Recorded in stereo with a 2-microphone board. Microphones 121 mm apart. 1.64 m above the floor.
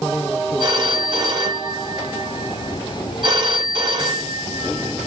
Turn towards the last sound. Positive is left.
turn(degrees=-40)  # may be behind; listen again after turning